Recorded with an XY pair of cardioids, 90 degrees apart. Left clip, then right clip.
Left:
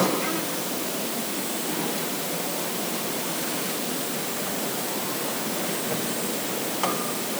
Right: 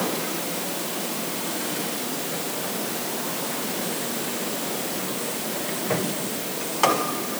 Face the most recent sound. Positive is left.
No sound to turn to.